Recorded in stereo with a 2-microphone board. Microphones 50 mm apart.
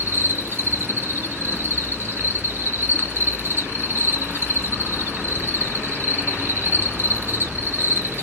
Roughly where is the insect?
Right.